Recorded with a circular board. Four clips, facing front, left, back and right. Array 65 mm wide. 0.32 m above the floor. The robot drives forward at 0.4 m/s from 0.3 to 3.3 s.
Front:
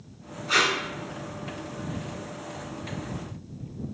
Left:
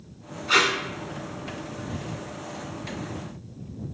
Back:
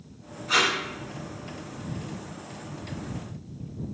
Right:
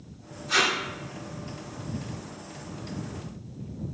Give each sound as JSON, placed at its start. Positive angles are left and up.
{"t": 0.5, "sound": "tape being pulled", "azimuth_deg": 80, "distance_m": 0.6}